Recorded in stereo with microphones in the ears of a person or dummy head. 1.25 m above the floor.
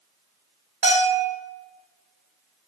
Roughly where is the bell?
Right.